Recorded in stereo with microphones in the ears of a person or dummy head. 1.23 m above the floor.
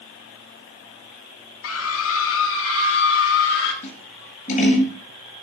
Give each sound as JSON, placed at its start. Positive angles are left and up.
{"t": 1.6, "sound": "a scream", "side_deg": 75, "distance_m": 1.5}
{"t": 3.8, "sound": "scissors", "side_deg": 40, "distance_m": 9.5}